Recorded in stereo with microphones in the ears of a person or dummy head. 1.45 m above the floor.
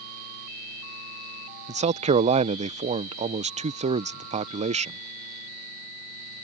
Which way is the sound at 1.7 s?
30° right (ahead or behind).